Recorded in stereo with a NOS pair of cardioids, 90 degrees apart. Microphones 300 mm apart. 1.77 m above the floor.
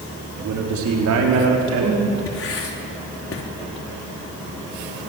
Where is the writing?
45° left, 4 m.